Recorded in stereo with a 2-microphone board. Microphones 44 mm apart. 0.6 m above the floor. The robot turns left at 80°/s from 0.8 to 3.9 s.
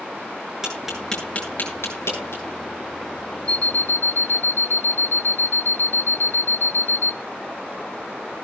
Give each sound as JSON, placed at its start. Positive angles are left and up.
{"t": 0.6, "sound": "tapping", "side_deg": -15, "distance_m": 9.0}
{"t": 3.5, "sound": "an alarm clock", "azimuth_deg": 155, "distance_m": 0.7}